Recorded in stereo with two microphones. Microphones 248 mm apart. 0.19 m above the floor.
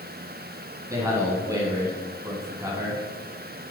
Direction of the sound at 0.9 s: 15° right (ahead or behind).